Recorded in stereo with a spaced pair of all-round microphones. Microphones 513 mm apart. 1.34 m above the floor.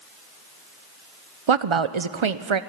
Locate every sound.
1.5 s a woman speaking: 70° right (ahead or behind), 0.7 m